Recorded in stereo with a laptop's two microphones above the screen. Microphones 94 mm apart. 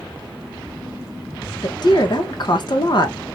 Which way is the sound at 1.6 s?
55° left (ahead or behind).